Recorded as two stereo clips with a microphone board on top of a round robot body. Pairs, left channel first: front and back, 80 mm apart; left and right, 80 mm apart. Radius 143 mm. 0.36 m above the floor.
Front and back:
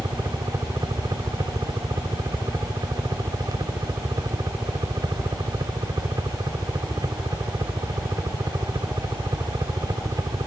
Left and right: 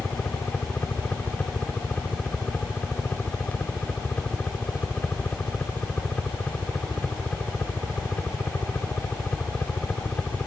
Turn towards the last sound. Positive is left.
turn(degrees=160)